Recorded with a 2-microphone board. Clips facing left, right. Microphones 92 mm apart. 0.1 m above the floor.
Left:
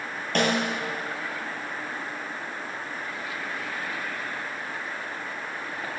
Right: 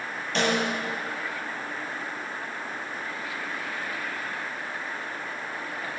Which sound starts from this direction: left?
A snare drum, at 0.3 s.